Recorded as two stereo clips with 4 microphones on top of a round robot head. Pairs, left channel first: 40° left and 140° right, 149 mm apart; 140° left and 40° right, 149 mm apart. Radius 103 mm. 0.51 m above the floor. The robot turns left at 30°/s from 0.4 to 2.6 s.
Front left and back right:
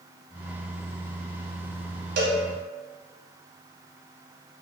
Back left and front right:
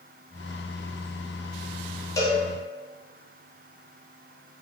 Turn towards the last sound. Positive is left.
turn(degrees=-165)